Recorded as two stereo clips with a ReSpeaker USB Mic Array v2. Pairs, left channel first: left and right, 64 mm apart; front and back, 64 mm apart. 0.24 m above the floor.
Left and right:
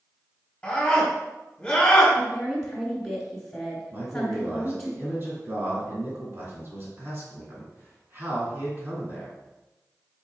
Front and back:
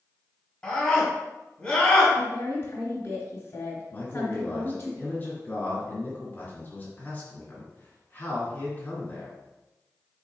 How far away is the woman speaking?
About 1.1 m.